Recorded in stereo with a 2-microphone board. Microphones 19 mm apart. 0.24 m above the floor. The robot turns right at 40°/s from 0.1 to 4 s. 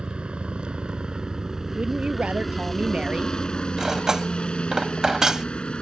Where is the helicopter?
65° right (ahead or behind); by 5.8 s 60° left (ahead or behind).